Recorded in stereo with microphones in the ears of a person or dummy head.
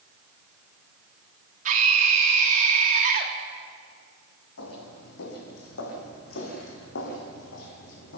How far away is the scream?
About 3 m.